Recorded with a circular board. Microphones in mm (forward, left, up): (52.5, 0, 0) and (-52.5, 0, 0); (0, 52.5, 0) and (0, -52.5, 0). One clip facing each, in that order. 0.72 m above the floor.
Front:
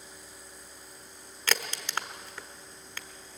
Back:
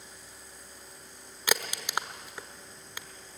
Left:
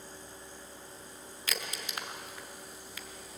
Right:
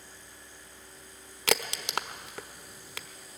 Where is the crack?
105° right, 0.9 m.